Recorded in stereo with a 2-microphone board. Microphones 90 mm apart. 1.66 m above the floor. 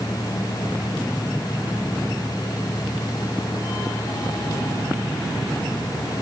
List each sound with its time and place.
Only background noise.